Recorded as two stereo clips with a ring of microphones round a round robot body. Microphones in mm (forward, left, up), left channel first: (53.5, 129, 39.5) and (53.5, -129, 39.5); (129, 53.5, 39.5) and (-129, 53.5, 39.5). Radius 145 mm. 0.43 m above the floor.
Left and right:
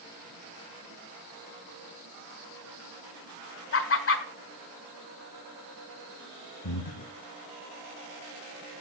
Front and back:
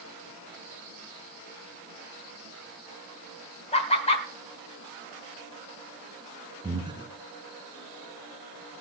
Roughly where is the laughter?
Ahead left.